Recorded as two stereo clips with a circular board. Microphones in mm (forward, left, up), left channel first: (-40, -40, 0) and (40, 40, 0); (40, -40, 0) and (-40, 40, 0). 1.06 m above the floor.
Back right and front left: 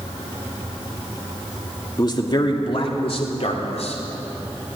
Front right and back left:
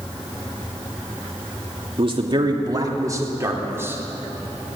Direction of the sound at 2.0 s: 170° left.